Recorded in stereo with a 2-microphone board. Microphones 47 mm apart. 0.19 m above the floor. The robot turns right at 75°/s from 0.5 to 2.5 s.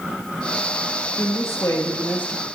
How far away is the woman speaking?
About 4.5 m.